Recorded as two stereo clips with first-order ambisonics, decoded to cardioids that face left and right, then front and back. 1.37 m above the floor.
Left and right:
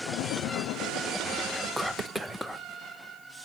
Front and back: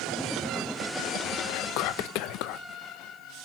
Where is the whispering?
5° right, 0.6 m.